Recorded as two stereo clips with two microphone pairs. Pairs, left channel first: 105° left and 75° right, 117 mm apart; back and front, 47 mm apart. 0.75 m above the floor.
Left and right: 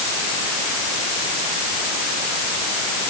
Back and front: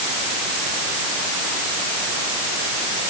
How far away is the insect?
I don't hear an insect.